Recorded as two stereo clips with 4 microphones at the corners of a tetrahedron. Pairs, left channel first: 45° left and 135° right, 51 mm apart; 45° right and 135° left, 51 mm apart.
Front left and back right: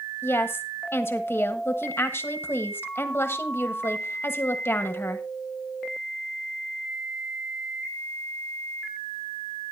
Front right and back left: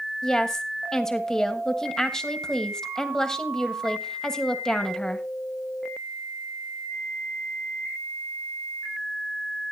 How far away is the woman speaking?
About 1.3 m.